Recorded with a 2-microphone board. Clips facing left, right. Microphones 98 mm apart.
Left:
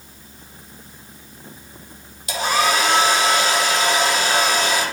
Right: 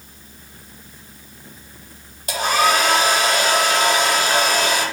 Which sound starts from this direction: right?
A hair dryer, at 2.3 s.